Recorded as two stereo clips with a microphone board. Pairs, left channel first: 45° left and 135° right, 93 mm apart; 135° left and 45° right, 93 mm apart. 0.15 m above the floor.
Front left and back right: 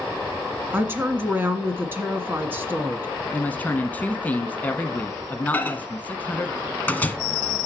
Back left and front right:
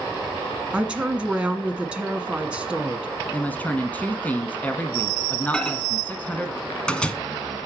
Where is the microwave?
70° left, 1.1 m.